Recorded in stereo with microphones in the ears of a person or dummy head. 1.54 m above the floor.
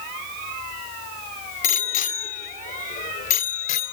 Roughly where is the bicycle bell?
Left.